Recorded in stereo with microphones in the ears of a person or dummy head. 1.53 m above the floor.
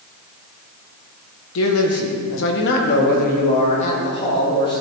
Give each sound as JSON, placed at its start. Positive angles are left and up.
{"t": 1.6, "sound": "a man speaking", "side_deg": 75, "distance_m": 1.3}